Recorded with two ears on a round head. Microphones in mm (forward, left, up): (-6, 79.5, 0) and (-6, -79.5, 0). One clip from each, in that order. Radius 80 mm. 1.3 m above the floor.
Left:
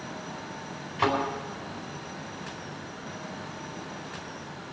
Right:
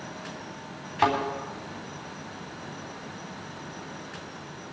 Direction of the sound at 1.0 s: 40° right (ahead or behind).